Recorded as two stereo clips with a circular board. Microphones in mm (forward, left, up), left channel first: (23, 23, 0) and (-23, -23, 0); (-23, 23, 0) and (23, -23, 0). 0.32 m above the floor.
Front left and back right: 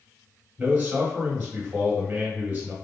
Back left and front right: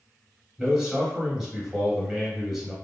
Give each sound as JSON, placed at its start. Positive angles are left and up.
{"t": 0.6, "sound": "a man speaking", "azimuth_deg": -125, "distance_m": 0.9}